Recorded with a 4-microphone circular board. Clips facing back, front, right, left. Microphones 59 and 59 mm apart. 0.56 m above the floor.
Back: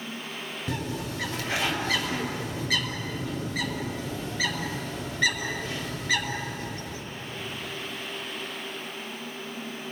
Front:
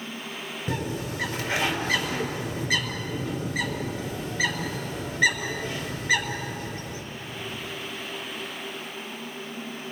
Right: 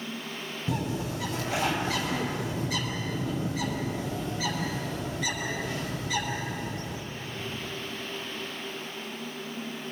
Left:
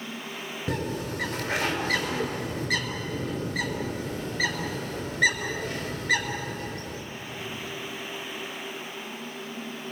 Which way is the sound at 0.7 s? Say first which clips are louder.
Front 2 dB, left 1 dB; 80° left.